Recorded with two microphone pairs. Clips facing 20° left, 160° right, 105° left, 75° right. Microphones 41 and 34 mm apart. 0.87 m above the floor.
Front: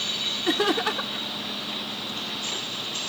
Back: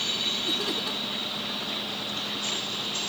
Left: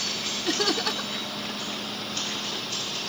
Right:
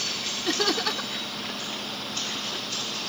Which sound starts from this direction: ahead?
Laughter, at 0.5 s.